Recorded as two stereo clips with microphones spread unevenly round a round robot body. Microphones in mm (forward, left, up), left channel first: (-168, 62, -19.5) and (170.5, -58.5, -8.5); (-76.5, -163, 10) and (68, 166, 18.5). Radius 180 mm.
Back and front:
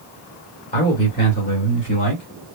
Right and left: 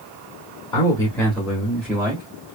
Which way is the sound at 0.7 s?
175° right.